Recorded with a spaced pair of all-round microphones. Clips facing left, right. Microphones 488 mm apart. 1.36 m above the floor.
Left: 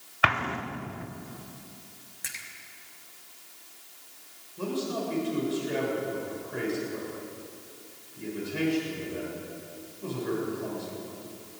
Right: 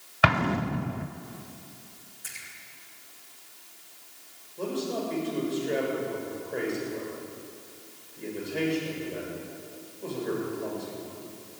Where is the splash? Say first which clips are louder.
Left 2 dB; 85° left, 2.5 m.